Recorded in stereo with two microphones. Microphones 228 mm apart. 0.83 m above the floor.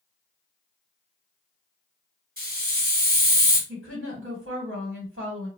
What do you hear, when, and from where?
2.4 s a hiss: 40° right (ahead or behind), 1.7 m
3.7 s a woman speaking: 60° right (ahead or behind), 1.9 m